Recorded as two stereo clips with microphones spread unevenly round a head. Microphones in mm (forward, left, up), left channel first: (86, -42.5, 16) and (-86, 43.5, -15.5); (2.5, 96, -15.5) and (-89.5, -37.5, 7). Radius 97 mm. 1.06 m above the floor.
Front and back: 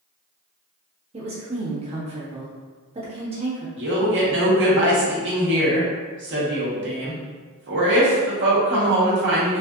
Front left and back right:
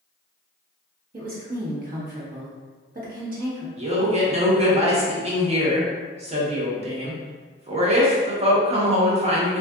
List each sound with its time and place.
1.1 s a woman speaking: 155° right, 1.2 m
3.8 s a man speaking: 175° right, 1.1 m